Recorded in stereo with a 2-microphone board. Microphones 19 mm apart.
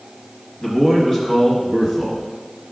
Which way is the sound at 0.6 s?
25° left (ahead or behind).